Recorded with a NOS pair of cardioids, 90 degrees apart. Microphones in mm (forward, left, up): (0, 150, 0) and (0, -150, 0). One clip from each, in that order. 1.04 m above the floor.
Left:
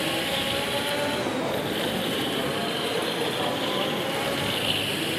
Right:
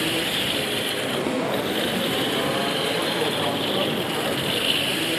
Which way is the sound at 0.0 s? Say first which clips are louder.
Right 2 dB; 40° right.